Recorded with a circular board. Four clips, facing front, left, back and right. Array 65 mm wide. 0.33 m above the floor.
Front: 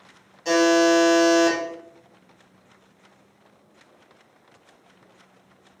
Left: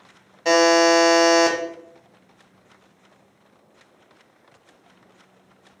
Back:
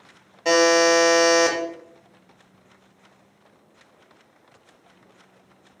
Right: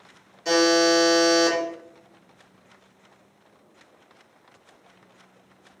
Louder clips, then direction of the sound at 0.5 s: Left 4 dB, back 1 dB; 130° left.